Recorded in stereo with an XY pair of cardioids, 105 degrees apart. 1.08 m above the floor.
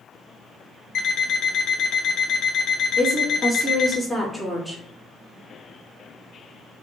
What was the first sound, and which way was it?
An alarm clock, 55° left.